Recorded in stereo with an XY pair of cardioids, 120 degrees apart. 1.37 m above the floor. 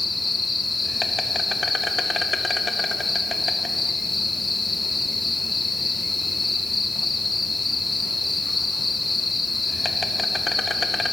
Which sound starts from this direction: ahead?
An insect, at 0.0 s.